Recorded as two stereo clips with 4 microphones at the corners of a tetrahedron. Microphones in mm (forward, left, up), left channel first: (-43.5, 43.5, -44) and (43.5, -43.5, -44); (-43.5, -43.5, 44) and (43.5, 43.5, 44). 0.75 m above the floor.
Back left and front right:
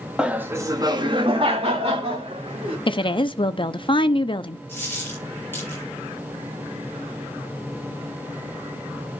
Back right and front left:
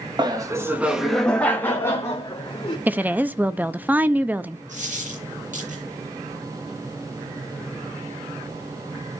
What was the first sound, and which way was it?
Laughter, 30° left.